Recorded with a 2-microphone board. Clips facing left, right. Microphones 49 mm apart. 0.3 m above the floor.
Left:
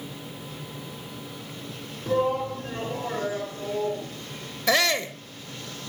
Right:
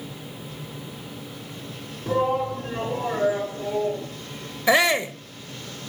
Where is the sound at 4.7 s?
20° right (ahead or behind), 0.9 m.